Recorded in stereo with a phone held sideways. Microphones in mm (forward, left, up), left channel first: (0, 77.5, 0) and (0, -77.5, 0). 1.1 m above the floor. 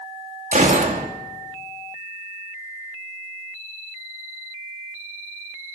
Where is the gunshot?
55° right (ahead or behind), 2.5 m.